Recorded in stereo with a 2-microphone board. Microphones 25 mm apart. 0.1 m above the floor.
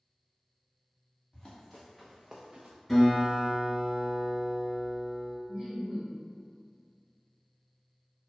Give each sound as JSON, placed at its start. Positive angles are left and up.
{"t": 1.3, "sound": "running footsteps", "side_deg": 20, "distance_m": 1.0}
{"t": 2.9, "sound": "a guitar", "side_deg": 10, "distance_m": 1.7}
{"t": 5.5, "sound": "laughter", "side_deg": -5, "distance_m": 1.1}